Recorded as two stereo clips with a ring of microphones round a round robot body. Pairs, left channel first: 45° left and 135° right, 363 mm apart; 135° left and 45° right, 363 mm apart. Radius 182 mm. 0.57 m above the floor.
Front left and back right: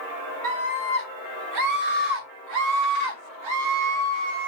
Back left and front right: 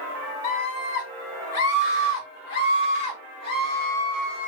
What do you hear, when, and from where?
0.4 s a scream: 165° left, 1.8 m; by 4.5 s 140° right, 2.5 m